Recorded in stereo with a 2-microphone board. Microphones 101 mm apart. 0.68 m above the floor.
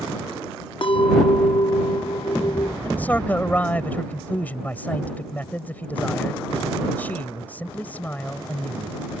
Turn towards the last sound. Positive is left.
turn(degrees=15)  # may be behind; listen again after turning